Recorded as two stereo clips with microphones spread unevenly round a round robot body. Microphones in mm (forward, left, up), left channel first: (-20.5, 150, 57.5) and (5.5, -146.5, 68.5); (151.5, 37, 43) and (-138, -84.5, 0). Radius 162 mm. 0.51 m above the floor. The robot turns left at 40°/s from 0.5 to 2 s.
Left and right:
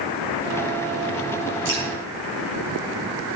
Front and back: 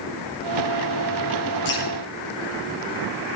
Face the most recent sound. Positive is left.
turn(degrees=-45)